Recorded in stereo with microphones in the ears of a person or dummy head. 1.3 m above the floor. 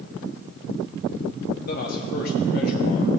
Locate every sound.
1.7 s a man speaking: 45° left (ahead or behind), 1.1 m